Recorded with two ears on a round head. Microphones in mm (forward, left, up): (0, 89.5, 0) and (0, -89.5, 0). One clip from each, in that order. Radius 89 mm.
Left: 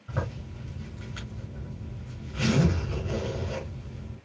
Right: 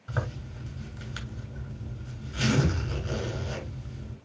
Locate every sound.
0.1 s a zipper: 50° right (ahead or behind), 7.5 m